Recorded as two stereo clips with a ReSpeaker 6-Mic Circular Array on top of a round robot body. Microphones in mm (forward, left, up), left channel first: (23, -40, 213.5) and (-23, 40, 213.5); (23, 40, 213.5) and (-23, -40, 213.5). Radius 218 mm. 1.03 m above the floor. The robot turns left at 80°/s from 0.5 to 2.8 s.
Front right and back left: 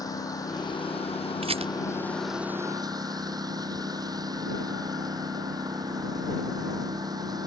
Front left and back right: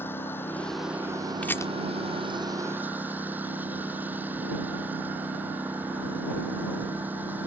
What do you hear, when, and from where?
0.0 s a lawn mower: 5° right; by 7.5 s 170° left
1.4 s a rattle: 135° left; by 1.7 s 115° left